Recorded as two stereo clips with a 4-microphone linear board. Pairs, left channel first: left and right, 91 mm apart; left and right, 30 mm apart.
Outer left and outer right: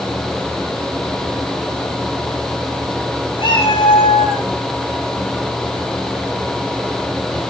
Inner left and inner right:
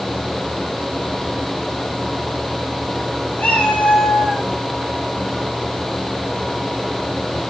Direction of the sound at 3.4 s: 65° left (ahead or behind).